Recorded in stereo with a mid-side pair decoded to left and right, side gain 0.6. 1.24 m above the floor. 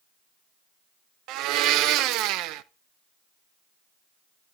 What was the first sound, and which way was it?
A blender, 70° right.